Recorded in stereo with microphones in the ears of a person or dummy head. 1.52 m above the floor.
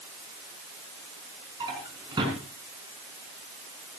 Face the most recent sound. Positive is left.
turn(degrees=-25)  # may be behind; listen again after turning